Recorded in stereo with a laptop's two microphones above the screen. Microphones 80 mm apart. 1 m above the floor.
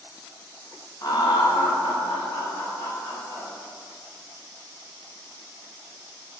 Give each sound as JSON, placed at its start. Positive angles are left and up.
{"t": 1.0, "sound": "laughter", "side_deg": 45, "distance_m": 0.7}